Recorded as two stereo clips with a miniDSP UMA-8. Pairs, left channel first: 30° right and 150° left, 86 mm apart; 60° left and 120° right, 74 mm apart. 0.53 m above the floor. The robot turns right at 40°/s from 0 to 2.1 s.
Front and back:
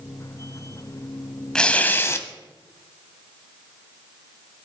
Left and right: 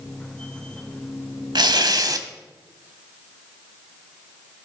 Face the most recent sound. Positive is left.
turn(degrees=-90)